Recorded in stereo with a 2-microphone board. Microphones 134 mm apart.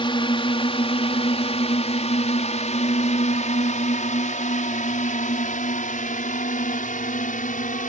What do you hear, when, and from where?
0.0 s a drone: 40° left (ahead or behind); by 7.9 s 80° left